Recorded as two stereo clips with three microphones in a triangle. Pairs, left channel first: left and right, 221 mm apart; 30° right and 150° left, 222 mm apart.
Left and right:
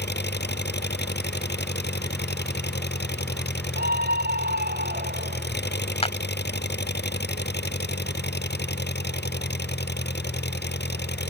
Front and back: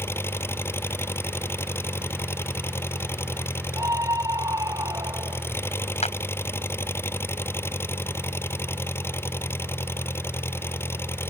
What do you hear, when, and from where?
0.0 s an engine running: 50° left
3.8 s a scream: 135° right
6.0 s a clap: 30° left